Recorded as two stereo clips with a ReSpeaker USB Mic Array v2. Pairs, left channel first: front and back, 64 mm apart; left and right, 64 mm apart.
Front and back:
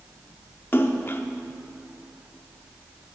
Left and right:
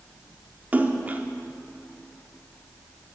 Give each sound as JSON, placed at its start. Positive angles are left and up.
{"t": 0.7, "sound": "a splash", "azimuth_deg": -35, "distance_m": 0.7}